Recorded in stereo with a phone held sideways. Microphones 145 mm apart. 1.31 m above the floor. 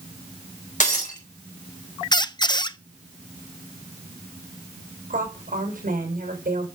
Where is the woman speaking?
75° right (ahead or behind), 6.5 m.